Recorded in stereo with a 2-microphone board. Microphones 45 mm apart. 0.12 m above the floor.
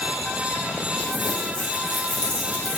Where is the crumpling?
35° left (ahead or behind), 1.8 m.